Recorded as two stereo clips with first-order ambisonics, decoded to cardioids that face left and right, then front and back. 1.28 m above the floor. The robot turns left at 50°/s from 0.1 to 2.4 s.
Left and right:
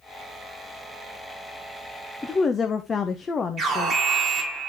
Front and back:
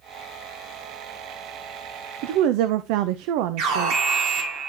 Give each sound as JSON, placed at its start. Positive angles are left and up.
{"t": 2.2, "sound": "a woman speaking", "azimuth_deg": 175, "distance_m": 0.7}
{"t": 3.6, "sound": "an alarm", "azimuth_deg": -155, "distance_m": 3.5}